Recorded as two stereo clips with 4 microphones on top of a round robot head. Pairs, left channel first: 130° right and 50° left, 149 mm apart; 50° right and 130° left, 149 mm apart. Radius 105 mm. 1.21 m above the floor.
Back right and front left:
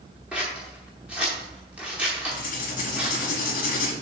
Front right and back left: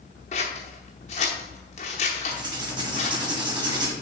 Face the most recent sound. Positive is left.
turn(degrees=-165)